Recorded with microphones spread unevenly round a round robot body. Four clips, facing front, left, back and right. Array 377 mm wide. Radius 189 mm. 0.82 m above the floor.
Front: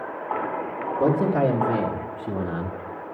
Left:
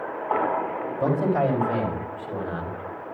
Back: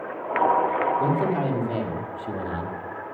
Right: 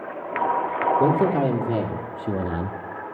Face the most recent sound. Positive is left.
turn(degrees=-75)